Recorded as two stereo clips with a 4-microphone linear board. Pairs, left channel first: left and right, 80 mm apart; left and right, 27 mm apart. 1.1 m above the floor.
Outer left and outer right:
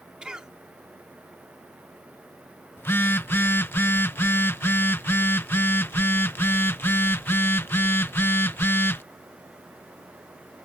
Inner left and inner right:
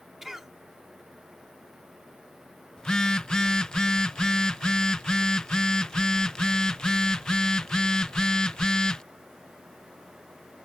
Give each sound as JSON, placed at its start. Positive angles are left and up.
{"t": 0.2, "sound": "a cough", "side_deg": -10}
{"t": 2.8, "sound": "a phone buzzing", "side_deg": 30}